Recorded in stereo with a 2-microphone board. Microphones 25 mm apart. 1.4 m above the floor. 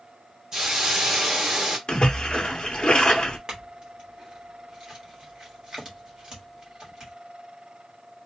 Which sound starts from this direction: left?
A splash, at 1.9 s.